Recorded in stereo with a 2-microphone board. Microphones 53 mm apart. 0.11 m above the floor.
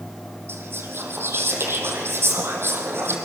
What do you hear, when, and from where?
0.5 s whispering: 50° right (ahead or behind), 4 m